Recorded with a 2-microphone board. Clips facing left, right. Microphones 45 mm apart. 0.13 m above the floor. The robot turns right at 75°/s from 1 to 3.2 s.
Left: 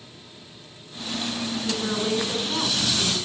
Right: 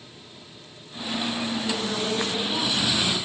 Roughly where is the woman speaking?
Centre.